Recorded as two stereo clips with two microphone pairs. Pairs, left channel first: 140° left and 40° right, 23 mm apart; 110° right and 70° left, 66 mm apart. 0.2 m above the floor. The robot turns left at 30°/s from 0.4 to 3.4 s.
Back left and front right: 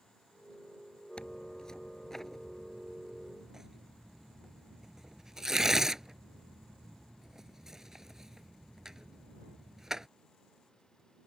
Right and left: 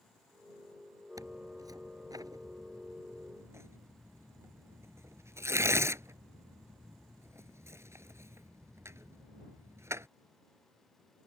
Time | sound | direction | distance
1.2 | tearing paper | 95° left | ?